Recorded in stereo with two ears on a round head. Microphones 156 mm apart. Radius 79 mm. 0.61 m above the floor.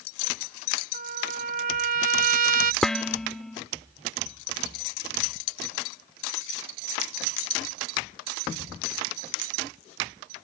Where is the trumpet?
50° right (ahead or behind).